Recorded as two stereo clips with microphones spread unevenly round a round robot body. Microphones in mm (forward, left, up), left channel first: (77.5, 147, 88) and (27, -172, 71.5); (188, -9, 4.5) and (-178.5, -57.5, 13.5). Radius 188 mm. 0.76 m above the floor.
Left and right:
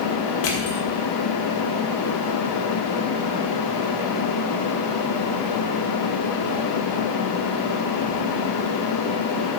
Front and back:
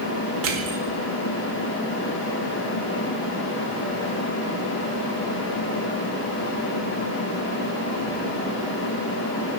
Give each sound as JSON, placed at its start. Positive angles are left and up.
{"t": 0.4, "sound": "crushing", "azimuth_deg": 130, "distance_m": 1.6}